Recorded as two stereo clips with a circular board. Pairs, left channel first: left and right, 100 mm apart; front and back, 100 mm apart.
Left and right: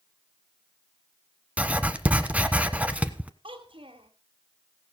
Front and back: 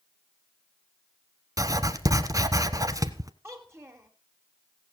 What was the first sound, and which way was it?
Writing, 155° right.